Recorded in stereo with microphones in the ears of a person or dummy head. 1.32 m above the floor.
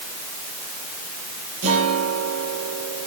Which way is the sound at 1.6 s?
45° right (ahead or behind).